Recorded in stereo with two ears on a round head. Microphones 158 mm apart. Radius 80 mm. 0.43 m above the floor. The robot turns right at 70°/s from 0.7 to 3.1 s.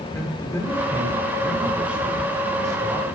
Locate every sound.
0.1 s a man speaking: 15° left (ahead or behind), 1.3 m; by 3.1 s 20° right (ahead or behind), 1.3 m